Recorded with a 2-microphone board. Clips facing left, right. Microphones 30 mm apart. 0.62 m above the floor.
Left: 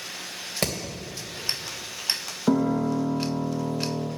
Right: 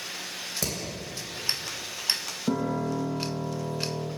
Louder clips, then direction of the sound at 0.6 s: Left 6 dB; 45° left (ahead or behind).